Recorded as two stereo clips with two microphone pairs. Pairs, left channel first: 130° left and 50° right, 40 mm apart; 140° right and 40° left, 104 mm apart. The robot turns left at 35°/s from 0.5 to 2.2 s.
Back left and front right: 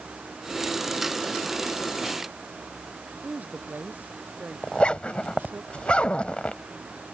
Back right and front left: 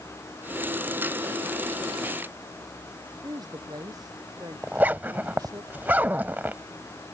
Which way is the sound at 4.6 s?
105° left.